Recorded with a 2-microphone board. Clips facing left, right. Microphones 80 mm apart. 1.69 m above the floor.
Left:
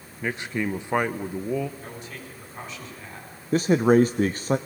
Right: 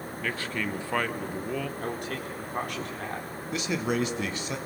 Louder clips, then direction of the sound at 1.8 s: Right 6 dB; 60° right (ahead or behind).